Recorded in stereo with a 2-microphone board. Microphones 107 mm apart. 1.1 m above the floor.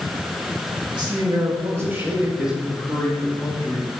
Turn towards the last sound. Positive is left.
turn(degrees=15)  # may be behind; listen again after turning